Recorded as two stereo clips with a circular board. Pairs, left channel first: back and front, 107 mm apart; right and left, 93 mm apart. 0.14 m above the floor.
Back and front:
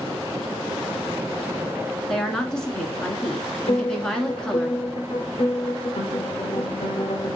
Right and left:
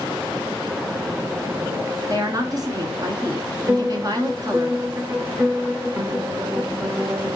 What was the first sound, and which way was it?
A woman speaking, 100° left.